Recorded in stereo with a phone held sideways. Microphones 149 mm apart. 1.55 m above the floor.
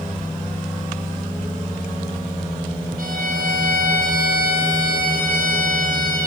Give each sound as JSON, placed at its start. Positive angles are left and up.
{"t": 3.0, "sound": "a violin", "side_deg": -70, "distance_m": 9.0}